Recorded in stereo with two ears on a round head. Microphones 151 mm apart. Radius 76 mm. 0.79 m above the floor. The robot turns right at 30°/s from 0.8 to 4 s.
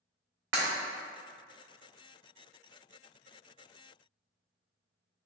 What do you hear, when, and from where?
0.5 s breaking glass: 75° right (ahead or behind), 1.0 m